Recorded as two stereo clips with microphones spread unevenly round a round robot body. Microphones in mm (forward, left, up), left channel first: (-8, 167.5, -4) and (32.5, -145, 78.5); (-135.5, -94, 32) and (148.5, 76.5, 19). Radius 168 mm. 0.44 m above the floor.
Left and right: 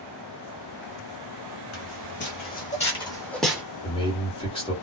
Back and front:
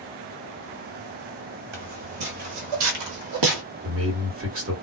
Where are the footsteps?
45° left, 1.5 m; by 3.6 s 5° right, 1.0 m.